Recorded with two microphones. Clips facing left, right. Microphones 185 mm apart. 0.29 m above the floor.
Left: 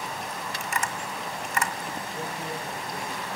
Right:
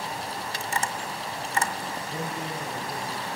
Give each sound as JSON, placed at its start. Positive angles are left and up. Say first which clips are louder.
{"t": 0.6, "sound": "tapping", "louder": "right 2 dB", "side_deg": -30, "distance_m": 1.3}
{"t": 2.1, "sound": "a man speaking", "louder": "right 2 dB", "side_deg": -65, "distance_m": 7.0}